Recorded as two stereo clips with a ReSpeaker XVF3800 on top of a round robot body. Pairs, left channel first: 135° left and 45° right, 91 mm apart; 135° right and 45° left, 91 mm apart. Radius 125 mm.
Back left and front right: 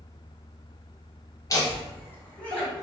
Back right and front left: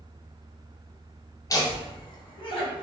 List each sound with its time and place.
1.5 s laughter: straight behind, 1.0 m; by 2.8 s 145° right, 1.3 m